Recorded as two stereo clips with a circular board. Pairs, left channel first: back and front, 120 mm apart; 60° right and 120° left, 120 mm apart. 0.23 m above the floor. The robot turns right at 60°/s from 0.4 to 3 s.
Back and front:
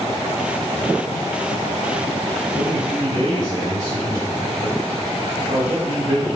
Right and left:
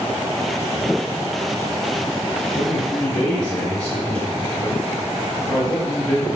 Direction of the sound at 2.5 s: 15° right.